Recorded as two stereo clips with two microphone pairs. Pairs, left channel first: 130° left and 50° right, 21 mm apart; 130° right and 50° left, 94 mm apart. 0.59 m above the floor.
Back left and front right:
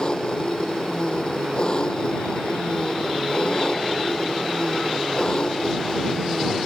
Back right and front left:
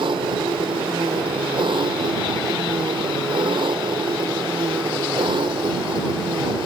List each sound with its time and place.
0.0 s an engine running: 80° left